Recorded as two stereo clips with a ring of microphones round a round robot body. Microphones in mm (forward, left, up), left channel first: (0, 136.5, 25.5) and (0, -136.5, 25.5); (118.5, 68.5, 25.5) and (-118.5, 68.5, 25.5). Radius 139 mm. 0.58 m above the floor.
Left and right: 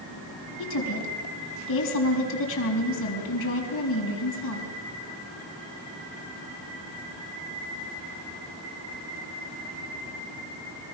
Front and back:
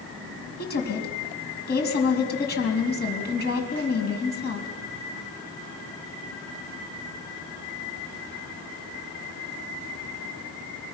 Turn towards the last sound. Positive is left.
turn(degrees=45)